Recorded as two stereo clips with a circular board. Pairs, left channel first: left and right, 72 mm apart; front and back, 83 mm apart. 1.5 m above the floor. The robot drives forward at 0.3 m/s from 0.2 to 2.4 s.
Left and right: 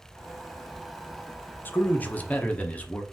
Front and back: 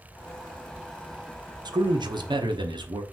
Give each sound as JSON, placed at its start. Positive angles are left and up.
{"t": 1.6, "sound": "a man speaking", "azimuth_deg": 150, "distance_m": 0.6}